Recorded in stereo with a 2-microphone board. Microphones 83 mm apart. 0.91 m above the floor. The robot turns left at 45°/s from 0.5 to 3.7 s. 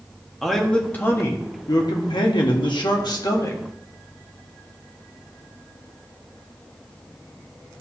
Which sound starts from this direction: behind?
A man speaking, at 0.4 s.